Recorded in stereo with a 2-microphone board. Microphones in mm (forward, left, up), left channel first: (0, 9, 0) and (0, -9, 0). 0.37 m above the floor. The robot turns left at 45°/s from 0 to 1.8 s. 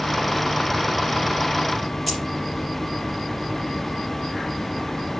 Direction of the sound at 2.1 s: 5° right (ahead or behind).